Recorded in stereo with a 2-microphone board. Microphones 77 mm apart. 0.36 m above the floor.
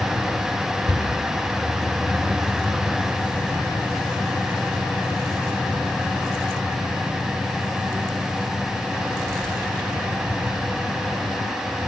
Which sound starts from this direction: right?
A cupboard door, at 0.9 s.